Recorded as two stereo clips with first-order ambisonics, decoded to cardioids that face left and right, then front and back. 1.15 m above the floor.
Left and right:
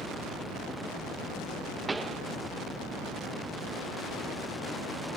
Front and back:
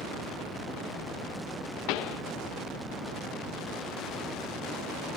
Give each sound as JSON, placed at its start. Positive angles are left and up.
{"t": 1.9, "sound": "a pop", "azimuth_deg": -10}